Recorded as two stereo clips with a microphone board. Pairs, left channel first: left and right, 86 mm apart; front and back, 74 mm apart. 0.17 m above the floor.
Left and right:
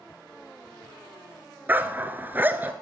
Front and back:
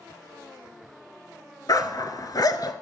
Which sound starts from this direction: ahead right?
A dog barking, at 1.7 s.